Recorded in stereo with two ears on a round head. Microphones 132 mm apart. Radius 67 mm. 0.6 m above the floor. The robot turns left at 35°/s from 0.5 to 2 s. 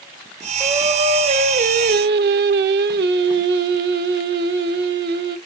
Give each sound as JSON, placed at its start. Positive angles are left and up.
{"t": 0.6, "sound": "singing", "azimuth_deg": -15, "distance_m": 0.5}